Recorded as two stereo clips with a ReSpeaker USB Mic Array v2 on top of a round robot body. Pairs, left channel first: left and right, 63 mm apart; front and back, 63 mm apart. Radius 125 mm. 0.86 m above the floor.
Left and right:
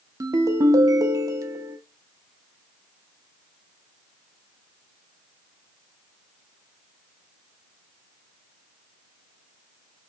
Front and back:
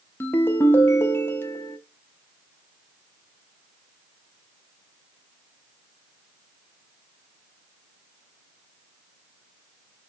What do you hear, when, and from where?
0.2 s a ringtone: 60° right, 0.6 m